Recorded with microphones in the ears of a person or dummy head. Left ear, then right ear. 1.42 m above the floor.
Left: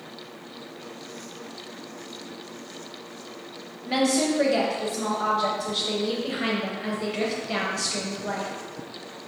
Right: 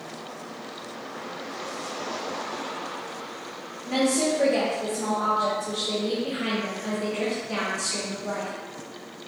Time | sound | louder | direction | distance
3.9 | a woman speaking | even | 35° left (ahead or behind) | 1.0 m